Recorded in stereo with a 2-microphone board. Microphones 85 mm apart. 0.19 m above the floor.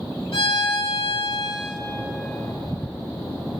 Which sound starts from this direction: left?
A violin, at 0.3 s.